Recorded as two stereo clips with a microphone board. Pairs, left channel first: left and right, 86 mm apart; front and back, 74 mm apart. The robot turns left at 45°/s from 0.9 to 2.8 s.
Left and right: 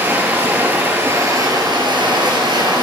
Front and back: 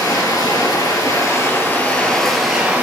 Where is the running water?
25° right, 2.5 m; by 2.8 s 110° right, 2.5 m.